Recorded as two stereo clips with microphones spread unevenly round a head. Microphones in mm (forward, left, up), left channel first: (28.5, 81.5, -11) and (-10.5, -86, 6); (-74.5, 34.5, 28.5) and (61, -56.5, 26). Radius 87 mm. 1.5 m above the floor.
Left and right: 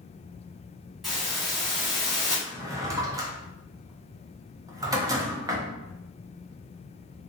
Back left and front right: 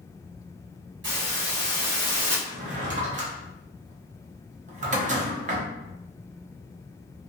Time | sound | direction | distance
1.0 | a hiss | 20° right | 1.5 m
2.5 | a drawer | 50° right | 0.7 m